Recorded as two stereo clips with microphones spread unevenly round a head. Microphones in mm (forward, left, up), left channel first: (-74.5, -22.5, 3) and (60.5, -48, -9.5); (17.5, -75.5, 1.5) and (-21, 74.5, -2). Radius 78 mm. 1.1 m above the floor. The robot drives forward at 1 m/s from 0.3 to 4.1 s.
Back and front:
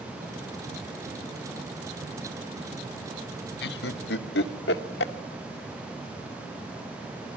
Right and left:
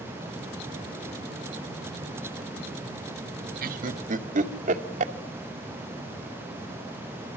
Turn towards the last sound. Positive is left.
turn(degrees=150)